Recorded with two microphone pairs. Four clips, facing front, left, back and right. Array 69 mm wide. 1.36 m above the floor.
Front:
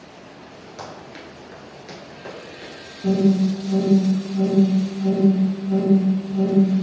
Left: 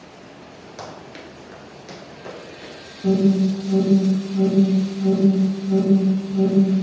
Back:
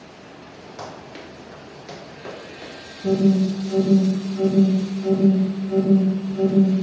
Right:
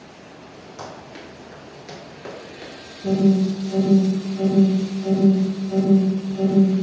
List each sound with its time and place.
0.8 s running footsteps: 115° left, 1.4 m; by 2.7 s 105° right, 1.5 m
3.0 s an alarm: 40° left, 1.7 m